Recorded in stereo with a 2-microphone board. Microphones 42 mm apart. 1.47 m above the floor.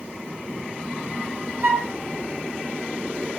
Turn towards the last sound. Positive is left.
turn(degrees=-35)  # may be behind; listen again after turning